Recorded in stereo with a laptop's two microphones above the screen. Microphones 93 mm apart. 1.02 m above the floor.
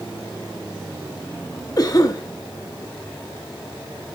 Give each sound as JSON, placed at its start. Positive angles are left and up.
{"t": 1.8, "sound": "a cough", "side_deg": 45, "distance_m": 1.5}